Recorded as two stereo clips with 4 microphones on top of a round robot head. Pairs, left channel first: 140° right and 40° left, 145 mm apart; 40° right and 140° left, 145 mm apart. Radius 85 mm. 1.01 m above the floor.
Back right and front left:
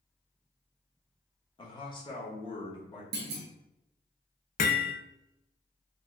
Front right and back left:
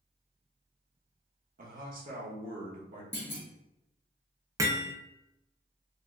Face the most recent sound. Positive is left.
turn(degrees=-150)